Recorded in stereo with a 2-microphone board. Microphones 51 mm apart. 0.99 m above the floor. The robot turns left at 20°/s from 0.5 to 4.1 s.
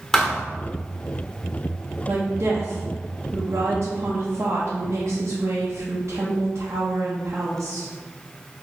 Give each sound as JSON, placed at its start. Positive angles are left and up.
{"t": 0.1, "sound": "a thud", "side_deg": 10, "distance_m": 1.1}
{"t": 2.1, "sound": "a woman speaking", "azimuth_deg": -60, "distance_m": 0.9}